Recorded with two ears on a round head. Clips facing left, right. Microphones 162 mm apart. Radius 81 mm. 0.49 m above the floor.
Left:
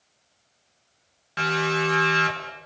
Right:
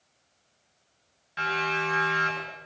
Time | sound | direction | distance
1.4 | a siren | 65° left (ahead or behind) | 9 m